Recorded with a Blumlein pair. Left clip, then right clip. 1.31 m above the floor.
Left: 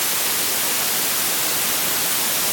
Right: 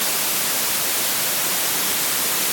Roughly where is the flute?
I don't hear a flute.